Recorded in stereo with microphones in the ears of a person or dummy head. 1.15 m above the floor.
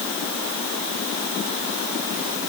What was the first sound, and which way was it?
Only background noise.